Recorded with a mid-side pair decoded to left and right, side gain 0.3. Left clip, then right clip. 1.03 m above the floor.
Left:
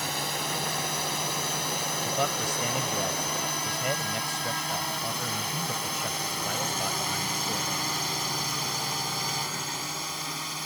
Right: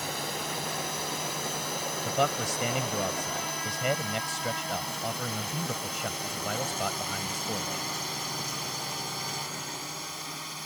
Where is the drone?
40° left; by 10.7 s 45° left.